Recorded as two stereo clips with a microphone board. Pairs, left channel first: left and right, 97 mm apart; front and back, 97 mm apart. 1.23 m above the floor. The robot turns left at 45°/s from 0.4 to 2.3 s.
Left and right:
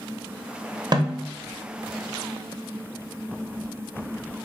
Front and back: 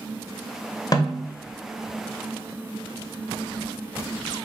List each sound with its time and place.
0.9 s a snare drum: 45° right, 0.6 m; by 1.2 s 60° right, 0.6 m